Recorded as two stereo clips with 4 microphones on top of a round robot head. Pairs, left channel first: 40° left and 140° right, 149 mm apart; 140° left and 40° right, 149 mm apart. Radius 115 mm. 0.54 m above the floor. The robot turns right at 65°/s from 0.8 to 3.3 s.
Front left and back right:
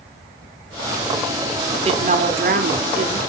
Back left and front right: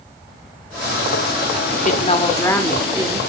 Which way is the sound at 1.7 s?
160° left.